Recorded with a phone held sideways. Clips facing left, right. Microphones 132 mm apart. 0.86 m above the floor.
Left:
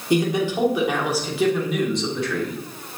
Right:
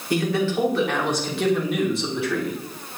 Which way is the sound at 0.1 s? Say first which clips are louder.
Left 2 dB; 20° left (ahead or behind).